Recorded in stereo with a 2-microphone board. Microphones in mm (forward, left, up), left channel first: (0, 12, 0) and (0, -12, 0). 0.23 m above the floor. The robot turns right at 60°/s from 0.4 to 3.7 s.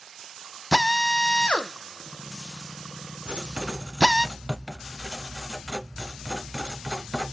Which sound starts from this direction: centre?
A drill, at 0.7 s.